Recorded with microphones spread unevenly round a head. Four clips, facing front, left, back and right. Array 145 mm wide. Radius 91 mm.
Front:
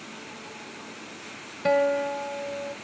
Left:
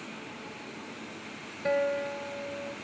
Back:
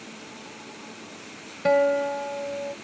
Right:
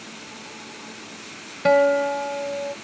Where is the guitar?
55° right.